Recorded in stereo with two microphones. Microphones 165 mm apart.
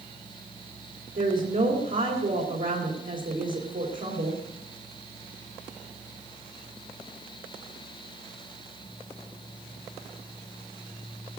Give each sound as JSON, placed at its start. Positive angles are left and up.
{"t": 1.1, "sound": "a woman speaking", "side_deg": -60, "distance_m": 3.5}